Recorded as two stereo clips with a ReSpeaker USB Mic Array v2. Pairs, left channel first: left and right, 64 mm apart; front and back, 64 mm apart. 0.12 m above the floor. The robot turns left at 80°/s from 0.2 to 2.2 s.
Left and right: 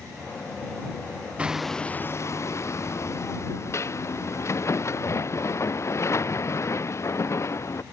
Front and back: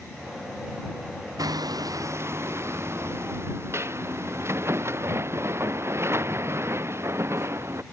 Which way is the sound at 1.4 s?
160° right.